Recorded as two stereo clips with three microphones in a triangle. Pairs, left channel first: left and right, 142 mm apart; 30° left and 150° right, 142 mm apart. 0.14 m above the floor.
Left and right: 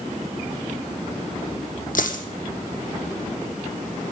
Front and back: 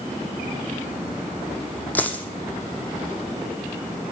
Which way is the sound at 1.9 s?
110° left.